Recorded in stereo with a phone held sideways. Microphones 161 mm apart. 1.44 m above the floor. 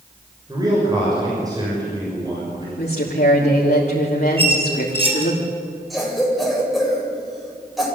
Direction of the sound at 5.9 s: Centre (ahead or behind).